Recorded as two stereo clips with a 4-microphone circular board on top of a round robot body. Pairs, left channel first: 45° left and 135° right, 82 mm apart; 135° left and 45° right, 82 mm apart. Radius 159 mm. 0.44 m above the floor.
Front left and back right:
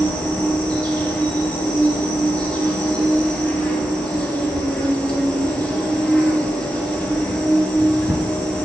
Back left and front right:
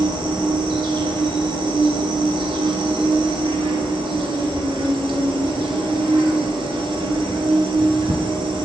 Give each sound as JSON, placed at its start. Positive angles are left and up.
{"t": 0.0, "sound": "an insect", "azimuth_deg": -35, "distance_m": 1.1}